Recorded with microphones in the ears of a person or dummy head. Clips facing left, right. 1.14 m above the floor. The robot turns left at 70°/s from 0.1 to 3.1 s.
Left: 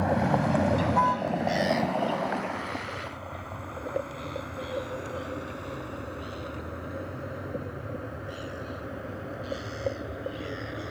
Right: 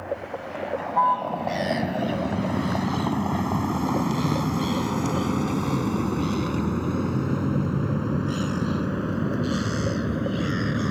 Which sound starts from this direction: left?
A vehicle, at 0.0 s.